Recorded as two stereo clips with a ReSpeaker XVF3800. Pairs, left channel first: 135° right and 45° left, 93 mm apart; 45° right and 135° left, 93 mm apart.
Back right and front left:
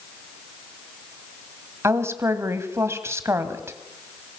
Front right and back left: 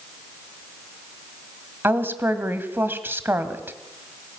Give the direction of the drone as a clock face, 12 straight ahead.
I don't hear a drone.